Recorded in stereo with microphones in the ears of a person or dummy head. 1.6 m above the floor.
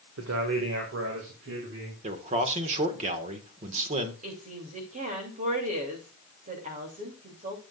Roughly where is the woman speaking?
Right.